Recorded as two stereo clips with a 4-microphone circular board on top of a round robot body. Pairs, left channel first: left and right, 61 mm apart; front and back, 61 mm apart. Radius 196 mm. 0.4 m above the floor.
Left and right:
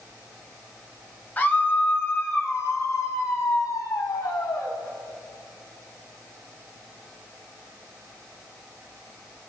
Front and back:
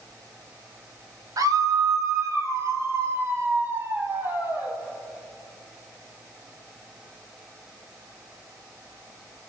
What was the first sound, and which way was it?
A scream, 155° left.